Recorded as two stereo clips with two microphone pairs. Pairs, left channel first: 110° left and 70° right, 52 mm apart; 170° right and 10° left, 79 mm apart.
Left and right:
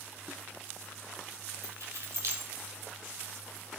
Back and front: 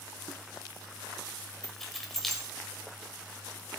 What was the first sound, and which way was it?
Keys jangling, 85° right.